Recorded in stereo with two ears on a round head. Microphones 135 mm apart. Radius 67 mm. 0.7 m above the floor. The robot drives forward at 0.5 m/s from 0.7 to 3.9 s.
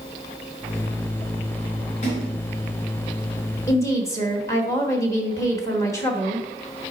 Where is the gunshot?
No gunshot in this recording.